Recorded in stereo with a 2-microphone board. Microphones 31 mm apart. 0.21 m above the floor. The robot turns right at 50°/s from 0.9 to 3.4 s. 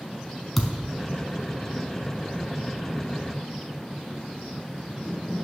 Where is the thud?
5° left (ahead or behind), 0.9 m.